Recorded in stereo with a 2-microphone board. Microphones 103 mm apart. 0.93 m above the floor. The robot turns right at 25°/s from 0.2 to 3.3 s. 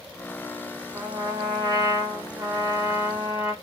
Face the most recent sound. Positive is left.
turn(degrees=-20)